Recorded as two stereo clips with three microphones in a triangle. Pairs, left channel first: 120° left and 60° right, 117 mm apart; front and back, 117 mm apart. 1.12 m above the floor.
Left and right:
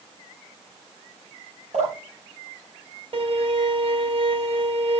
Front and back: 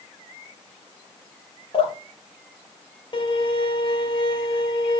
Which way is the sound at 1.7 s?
40° right.